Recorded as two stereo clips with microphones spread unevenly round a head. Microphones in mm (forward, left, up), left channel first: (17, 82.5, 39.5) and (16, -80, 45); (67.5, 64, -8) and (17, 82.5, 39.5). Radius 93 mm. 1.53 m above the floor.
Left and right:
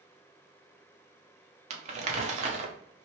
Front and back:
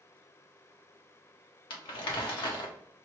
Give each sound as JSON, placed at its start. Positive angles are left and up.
{"t": 1.7, "sound": "crumpling", "azimuth_deg": -45, "distance_m": 0.6}